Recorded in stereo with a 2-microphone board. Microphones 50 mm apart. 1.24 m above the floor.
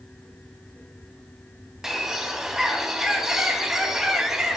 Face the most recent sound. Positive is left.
turn(degrees=-5)  # may be behind; listen again after turning